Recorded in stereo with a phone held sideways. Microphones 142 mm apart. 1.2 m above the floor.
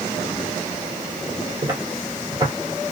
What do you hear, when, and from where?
1.6 s footsteps: 30° right (ahead or behind), 1.3 m